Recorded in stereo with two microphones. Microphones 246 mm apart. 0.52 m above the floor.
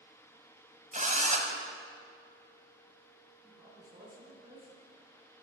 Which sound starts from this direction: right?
A drill, at 0.9 s.